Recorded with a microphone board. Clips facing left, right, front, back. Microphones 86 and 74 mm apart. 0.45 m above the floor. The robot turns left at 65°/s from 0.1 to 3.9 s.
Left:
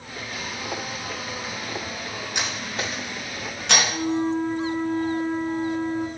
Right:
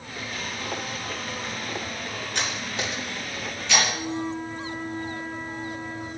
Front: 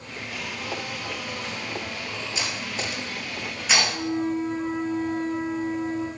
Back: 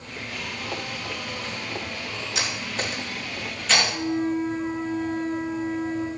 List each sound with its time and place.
2.4 s cutlery clinking: 165° left, 3.5 m; by 3.8 s 75° left, 3.5 m
3.9 s a flute: 70° left, 6 m